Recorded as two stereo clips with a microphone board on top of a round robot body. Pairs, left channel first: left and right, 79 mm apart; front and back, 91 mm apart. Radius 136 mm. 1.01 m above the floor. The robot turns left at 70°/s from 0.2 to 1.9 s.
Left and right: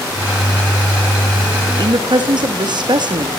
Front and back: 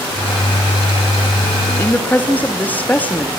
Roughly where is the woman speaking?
Ahead right.